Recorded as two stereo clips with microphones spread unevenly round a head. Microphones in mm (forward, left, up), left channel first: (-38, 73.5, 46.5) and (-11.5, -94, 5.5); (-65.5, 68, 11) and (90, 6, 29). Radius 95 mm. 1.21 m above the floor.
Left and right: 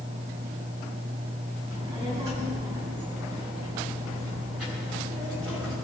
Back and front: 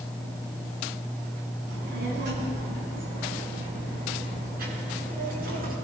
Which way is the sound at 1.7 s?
10° right.